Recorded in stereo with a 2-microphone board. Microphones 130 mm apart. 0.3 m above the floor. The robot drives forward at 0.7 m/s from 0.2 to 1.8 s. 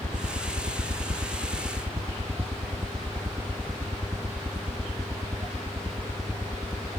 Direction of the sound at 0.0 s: 40° right (ahead or behind).